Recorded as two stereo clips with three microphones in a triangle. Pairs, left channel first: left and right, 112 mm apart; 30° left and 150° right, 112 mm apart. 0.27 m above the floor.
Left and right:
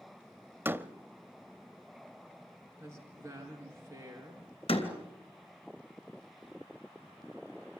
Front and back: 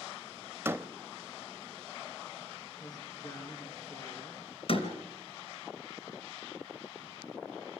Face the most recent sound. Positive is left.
turn(degrees=60)